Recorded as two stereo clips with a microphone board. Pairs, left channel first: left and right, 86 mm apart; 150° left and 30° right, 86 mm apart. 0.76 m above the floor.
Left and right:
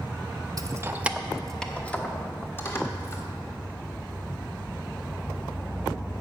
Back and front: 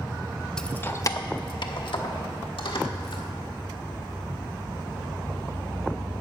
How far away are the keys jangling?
About 0.5 m.